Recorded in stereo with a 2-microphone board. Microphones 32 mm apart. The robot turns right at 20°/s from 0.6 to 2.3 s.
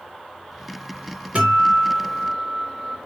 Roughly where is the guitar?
Right.